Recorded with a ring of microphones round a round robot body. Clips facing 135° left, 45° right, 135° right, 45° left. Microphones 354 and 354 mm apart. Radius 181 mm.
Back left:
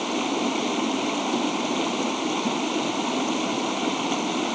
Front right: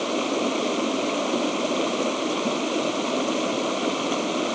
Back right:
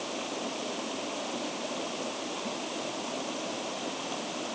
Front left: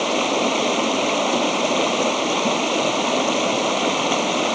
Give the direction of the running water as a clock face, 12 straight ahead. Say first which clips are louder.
Front right 1 dB, front left 15 dB; 10 o'clock.